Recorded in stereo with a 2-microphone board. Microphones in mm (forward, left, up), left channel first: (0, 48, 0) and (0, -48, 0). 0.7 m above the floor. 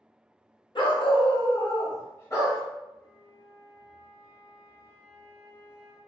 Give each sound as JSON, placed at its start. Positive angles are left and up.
{"t": 0.8, "sound": "a dog barking", "side_deg": 60, "distance_m": 0.6}
{"t": 3.0, "sound": "a flute", "side_deg": 35, "distance_m": 0.8}